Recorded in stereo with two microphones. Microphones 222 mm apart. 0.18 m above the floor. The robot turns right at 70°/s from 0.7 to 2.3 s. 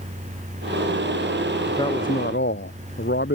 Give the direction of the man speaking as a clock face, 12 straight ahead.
12 o'clock.